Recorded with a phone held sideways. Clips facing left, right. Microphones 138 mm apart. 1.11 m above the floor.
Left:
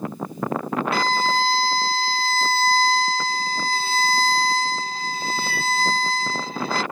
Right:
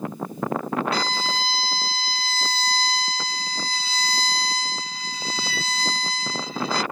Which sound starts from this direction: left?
A violin, at 0.9 s.